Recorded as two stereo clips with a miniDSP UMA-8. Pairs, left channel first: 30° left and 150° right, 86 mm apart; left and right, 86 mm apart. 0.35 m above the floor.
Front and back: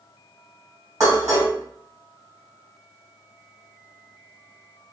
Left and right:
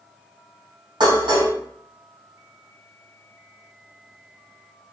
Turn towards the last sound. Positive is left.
turn(degrees=-100)